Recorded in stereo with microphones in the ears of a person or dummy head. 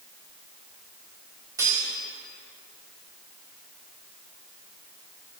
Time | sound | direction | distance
1.6 | cutlery clinking | 15° right (ahead or behind) | 2 m